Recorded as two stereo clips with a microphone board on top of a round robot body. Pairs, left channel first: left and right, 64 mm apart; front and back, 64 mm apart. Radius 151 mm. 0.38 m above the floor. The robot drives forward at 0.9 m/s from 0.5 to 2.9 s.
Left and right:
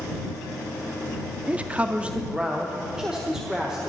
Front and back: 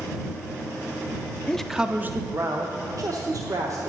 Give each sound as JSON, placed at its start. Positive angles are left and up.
{"t": 1.5, "sound": "a man speaking", "azimuth_deg": -55, "distance_m": 0.8}